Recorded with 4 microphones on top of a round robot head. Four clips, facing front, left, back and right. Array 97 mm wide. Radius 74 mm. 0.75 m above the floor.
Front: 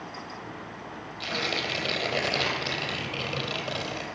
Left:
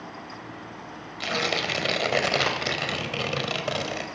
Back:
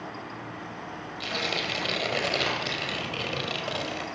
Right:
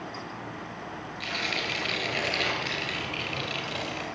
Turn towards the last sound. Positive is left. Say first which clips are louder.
# left 6 dB, front 1 dB
turn(degrees=85)